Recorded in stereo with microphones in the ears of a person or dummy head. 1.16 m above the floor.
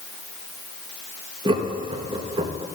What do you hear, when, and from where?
1.4 s laughter: 25° right (ahead or behind), 1.0 m